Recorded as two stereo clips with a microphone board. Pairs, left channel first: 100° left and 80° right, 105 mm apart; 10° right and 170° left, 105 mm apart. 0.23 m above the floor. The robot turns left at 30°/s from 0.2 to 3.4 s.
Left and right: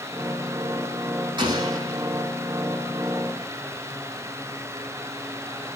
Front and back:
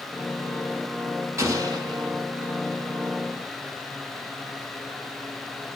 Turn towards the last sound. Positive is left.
turn(degrees=175)